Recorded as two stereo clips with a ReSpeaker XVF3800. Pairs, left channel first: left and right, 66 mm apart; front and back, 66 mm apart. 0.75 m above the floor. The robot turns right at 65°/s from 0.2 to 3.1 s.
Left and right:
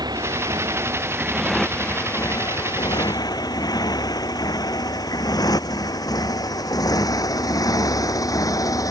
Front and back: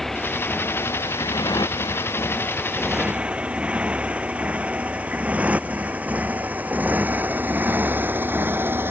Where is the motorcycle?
85° right; by 8.9 s 120° left.